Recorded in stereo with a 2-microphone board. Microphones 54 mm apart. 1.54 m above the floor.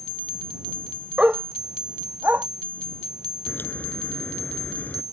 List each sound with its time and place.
1.2 s a dog barking: 20° right (ahead or behind); by 2.5 s 40° right (ahead or behind)
3.5 s a crack: 35° left (ahead or behind)